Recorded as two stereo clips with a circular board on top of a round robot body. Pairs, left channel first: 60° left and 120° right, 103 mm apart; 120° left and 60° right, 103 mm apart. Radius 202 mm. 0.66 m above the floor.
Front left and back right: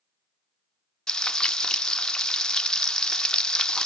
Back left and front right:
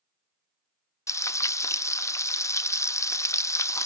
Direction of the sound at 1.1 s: 135° left.